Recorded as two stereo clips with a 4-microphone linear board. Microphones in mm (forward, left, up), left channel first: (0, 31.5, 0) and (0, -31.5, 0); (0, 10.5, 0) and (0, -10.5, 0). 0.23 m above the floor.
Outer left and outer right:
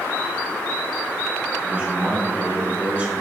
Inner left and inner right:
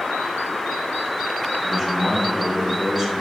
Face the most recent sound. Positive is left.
turn(degrees=-25)  # may be behind; listen again after turning